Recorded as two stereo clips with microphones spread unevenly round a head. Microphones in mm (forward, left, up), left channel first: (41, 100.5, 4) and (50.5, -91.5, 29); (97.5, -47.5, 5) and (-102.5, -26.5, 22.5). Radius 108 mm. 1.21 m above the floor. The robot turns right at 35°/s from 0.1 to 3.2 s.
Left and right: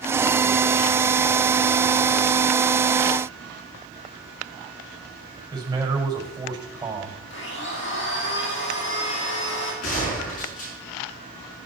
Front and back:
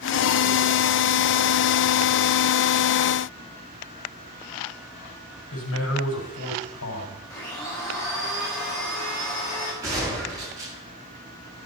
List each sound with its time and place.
5.5 s a man speaking: 15° right, 6 m
7.3 s a blender: 70° left, 5 m
9.8 s a gunshot: 100° left, 7 m